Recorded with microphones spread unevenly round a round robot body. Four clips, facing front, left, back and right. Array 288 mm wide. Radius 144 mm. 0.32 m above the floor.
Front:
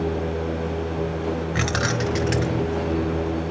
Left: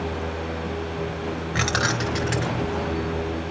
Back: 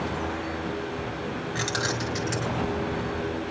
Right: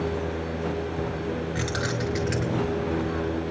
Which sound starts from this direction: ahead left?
Keys jangling, at 1.6 s.